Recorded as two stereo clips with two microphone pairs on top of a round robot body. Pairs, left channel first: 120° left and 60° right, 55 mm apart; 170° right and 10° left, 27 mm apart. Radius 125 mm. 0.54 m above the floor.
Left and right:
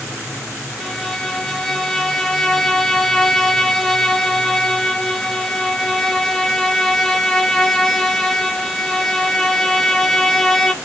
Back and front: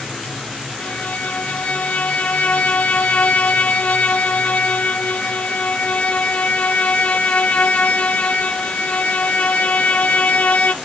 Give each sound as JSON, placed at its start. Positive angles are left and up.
{"t": 0.8, "sound": "a violin", "azimuth_deg": -170, "distance_m": 1.6}